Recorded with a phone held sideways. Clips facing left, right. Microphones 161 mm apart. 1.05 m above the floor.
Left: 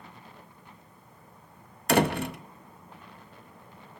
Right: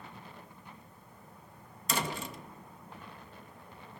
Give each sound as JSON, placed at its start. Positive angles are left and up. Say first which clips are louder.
{"t": 1.9, "sound": "a door slam", "louder": "left 12 dB", "side_deg": 65, "distance_m": 0.6}